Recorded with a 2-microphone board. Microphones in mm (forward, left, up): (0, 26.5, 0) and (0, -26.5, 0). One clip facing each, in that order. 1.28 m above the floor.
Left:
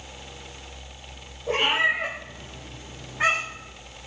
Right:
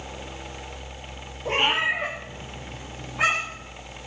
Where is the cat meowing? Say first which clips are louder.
Left 1 dB; 75° right (ahead or behind), 4 m.